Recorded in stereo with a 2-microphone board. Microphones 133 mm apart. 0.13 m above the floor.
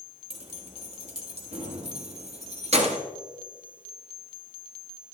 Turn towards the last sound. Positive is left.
turn(degrees=-55)  # may be behind; listen again after turning